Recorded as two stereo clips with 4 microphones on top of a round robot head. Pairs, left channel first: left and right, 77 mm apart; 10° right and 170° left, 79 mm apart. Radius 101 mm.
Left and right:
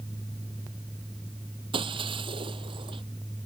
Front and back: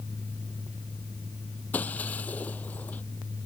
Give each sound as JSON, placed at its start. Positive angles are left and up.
{"t": 1.7, "sound": "breaking glass", "azimuth_deg": -85}